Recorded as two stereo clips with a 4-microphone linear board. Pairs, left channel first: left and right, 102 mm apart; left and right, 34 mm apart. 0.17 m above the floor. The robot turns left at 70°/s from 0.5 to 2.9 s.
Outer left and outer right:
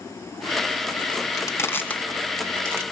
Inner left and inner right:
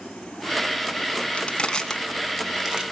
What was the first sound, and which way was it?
Crushing, 35° left (ahead or behind).